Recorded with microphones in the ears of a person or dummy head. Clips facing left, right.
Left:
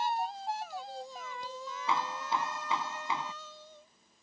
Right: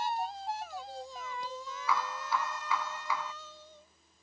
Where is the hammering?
25° left (ahead or behind).